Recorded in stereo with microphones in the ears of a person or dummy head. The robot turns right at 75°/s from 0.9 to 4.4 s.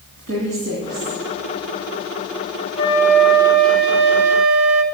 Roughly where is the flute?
Behind left.